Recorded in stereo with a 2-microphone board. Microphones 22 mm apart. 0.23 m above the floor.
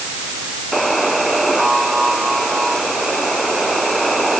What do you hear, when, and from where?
0.7 s a buzzer: centre (ahead or behind)